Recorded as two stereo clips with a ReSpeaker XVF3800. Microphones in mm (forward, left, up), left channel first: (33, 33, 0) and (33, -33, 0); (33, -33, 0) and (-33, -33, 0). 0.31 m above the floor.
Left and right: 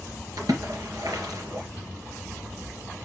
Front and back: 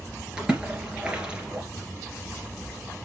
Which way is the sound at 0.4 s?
105° right.